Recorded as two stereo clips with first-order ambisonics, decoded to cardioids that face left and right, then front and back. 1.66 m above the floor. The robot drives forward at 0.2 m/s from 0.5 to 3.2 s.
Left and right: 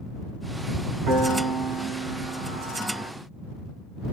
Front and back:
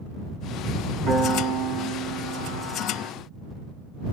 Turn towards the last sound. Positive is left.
turn(degrees=-140)